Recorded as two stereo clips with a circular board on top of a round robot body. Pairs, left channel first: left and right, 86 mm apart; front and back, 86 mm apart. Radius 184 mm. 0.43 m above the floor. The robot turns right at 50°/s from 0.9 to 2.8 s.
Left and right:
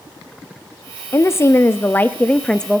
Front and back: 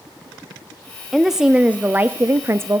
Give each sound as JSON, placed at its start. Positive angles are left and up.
{"t": 1.1, "sound": "a woman speaking", "azimuth_deg": 90, "distance_m": 0.8}